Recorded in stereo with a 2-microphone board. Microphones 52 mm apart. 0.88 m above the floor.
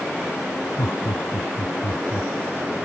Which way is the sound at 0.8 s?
80° left.